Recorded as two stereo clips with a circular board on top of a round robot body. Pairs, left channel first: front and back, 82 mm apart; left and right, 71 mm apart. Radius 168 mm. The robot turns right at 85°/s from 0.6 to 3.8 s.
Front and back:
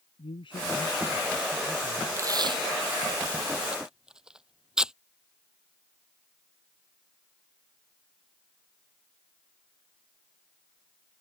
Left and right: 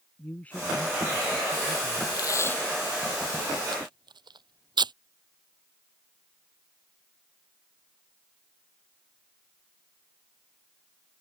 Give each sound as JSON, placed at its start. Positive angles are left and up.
{"t": 0.2, "sound": "a man speaking", "azimuth_deg": 20}
{"t": 2.2, "sound": "tape being pulled", "azimuth_deg": 120}